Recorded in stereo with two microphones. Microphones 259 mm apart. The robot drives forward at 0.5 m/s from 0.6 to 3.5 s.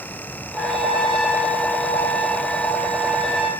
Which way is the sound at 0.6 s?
Centre (ahead or behind).